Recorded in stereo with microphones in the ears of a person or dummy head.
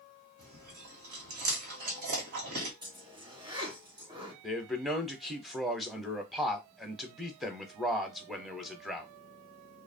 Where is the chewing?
45° right (ahead or behind), 1.0 m.